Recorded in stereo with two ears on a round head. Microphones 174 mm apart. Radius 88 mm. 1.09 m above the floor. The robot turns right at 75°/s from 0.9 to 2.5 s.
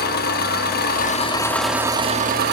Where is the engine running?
125° left, 1.2 m; by 2.5 s 115° right, 1.2 m.